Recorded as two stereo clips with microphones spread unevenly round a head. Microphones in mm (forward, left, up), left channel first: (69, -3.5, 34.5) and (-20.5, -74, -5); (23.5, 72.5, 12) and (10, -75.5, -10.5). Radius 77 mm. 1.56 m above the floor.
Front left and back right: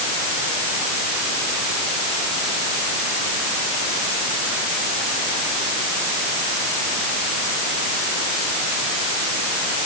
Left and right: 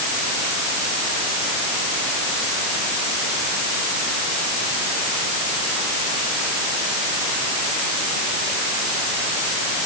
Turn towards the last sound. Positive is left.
No sound to turn to.